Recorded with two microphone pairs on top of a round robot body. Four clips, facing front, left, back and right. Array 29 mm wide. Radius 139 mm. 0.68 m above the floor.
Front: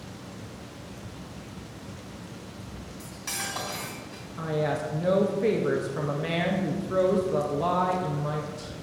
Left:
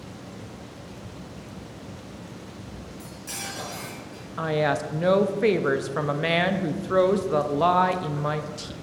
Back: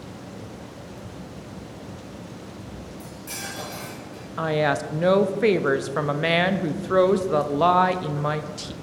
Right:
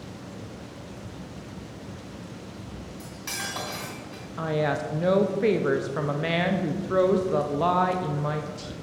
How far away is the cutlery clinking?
About 2.5 m.